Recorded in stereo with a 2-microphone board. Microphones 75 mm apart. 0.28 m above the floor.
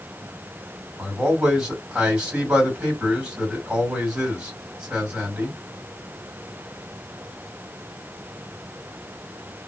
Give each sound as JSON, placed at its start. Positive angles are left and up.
{"t": 1.0, "sound": "a man speaking", "side_deg": -10, "distance_m": 2.0}